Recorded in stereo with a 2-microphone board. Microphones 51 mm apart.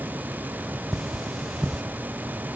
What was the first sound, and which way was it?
Cutlery clinking, centre (ahead or behind).